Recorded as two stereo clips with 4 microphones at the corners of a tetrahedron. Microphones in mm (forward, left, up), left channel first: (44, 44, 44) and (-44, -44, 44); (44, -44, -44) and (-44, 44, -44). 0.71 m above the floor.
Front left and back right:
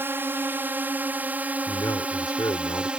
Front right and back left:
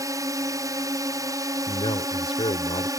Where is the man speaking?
10° right.